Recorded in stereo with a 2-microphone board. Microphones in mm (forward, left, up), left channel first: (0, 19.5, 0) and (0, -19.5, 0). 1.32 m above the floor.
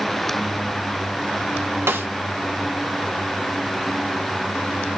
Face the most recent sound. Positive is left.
turn(degrees=-75)  # may be behind; listen again after turning